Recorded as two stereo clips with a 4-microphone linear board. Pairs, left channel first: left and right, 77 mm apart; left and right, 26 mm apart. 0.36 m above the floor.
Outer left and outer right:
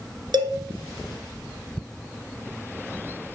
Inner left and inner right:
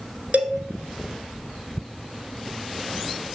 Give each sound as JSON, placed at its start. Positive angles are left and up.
{"t": 0.3, "sound": "a cowbell", "side_deg": -80, "distance_m": 1.3}